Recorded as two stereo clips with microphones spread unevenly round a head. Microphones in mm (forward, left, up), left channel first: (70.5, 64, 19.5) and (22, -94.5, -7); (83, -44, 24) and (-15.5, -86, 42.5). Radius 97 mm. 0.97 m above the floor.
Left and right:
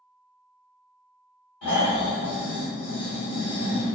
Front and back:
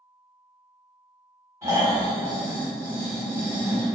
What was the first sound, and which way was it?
Snoring, 135° left.